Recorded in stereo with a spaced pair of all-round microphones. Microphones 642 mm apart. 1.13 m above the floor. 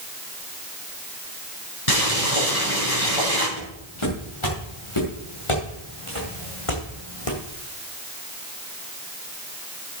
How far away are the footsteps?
About 8 m.